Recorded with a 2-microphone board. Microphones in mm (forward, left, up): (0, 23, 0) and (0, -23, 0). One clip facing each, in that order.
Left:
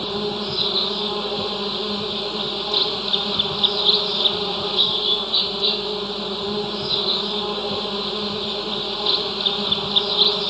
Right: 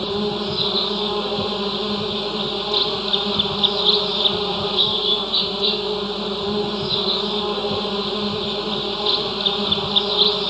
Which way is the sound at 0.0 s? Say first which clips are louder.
Right 2 dB; 10° right (ahead or behind).